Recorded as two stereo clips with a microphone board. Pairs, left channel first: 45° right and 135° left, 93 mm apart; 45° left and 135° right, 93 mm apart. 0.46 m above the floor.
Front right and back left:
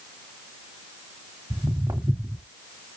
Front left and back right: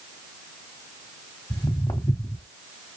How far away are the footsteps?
About 1.4 m.